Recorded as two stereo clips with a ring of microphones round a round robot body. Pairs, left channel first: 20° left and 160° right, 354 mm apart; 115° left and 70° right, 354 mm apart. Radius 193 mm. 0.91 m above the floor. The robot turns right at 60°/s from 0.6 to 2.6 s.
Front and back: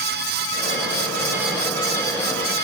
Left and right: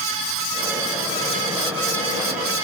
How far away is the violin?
I don't hear a violin.